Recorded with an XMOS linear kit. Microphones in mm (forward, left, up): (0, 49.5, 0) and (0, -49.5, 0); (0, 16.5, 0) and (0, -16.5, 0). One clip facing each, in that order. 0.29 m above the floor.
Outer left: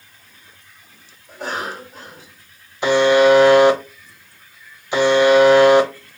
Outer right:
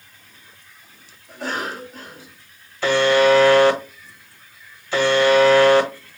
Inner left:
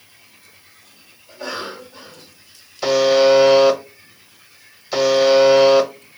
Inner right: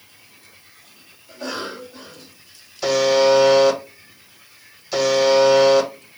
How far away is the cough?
About 2.5 m.